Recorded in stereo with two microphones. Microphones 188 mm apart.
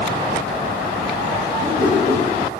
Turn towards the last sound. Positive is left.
turn(degrees=-85)